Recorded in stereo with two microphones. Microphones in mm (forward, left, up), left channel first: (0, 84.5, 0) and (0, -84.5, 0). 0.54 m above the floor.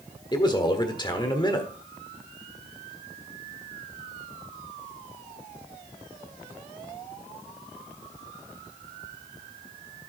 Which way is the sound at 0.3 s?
25° left (ahead or behind).